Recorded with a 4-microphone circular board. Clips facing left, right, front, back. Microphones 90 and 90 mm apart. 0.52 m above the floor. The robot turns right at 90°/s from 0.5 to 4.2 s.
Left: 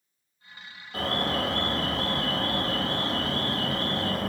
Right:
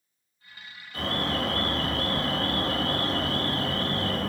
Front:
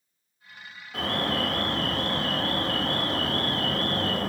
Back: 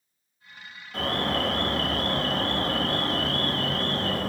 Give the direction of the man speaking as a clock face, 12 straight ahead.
I don't hear a man speaking.